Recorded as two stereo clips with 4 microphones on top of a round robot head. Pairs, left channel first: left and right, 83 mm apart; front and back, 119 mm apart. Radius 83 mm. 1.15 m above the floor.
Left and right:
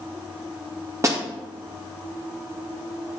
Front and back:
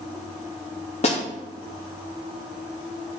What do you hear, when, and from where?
1.0 s a snare drum: 35° right, 2.5 m